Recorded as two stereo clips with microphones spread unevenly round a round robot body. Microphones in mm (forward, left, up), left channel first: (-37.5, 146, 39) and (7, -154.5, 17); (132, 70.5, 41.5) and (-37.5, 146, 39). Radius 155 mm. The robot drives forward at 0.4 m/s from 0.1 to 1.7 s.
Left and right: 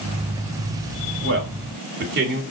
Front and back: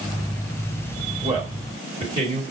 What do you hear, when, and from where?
1.2 s a man speaking: 130° right, 1.4 m; by 2.4 s 135° right, 1.6 m